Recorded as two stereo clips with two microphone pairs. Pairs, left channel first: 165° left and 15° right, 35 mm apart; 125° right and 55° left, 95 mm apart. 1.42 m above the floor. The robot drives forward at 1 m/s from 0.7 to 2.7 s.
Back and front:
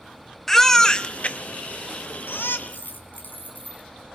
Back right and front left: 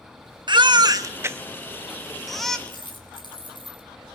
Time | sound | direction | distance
0.5 | a baby crying | 85° left | 1.1 m
2.7 | a dropped coin | 160° right | 5 m